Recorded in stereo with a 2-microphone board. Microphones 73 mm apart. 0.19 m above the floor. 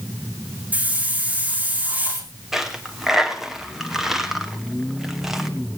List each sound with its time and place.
0.7 s a hiss: 20° right (ahead or behind), 4 m
2.5 s a dropped coin: 5° right (ahead or behind), 1.5 m